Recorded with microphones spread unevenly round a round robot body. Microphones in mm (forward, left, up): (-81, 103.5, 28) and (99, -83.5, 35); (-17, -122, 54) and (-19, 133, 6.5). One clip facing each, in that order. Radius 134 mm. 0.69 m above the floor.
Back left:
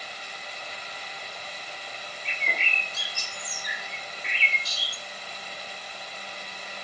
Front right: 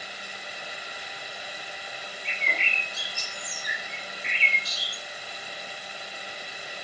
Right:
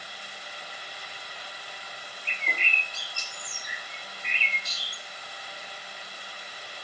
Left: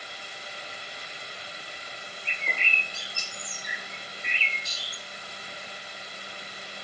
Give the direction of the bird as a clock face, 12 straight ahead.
8 o'clock.